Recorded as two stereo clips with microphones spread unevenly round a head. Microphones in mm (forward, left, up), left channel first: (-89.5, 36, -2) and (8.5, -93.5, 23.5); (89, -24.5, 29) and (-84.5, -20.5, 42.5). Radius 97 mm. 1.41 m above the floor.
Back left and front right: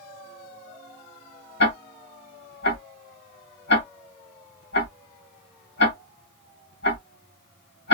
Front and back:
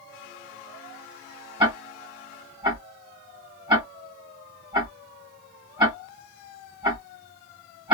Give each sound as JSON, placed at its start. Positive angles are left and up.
{"t": 1.6, "sound": "ticking", "azimuth_deg": 120, "distance_m": 1.5}